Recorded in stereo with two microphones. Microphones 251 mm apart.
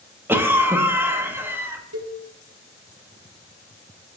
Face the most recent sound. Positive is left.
turn(degrees=-75)  # may be behind; listen again after turning